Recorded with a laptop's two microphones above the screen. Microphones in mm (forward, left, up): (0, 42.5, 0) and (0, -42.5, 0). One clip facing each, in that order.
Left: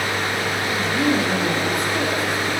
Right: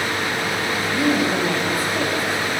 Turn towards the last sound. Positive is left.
turn(degrees=-5)  # may be behind; listen again after turning